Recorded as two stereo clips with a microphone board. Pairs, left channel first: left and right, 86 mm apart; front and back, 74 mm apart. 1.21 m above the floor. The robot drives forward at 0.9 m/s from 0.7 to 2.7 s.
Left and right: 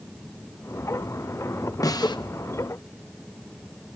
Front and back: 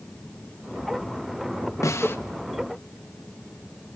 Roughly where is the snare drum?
Ahead left.